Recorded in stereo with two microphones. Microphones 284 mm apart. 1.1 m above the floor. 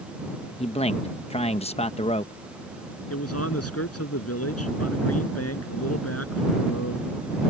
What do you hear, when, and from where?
0.6 s a man speaking: 20° left (ahead or behind)
3.1 s a man speaking: 55° left (ahead or behind)